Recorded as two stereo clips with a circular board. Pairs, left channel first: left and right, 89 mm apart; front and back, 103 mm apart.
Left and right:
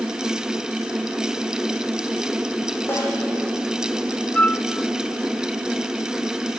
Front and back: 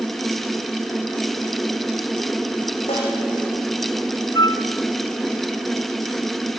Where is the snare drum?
25° left, 8 m.